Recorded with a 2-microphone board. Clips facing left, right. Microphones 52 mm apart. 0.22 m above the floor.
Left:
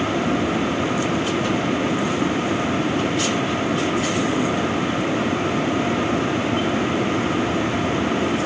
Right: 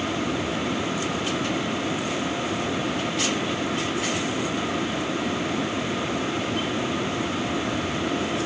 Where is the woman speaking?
I don't hear a woman speaking.